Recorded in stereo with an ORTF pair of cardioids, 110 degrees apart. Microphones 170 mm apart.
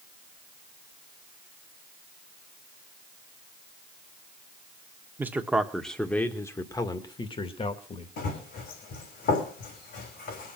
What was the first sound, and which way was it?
A man speaking, 10° right.